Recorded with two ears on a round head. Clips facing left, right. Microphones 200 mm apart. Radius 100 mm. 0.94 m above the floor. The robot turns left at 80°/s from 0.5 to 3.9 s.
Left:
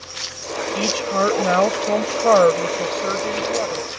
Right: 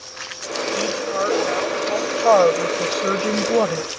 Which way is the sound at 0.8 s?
155° left.